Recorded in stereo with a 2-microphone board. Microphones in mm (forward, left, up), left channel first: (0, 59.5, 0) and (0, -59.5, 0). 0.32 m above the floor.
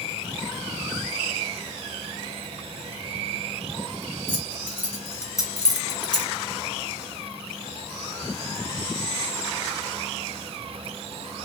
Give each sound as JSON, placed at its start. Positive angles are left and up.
{"t": 4.3, "sound": "keys jangling", "side_deg": 15, "distance_m": 1.5}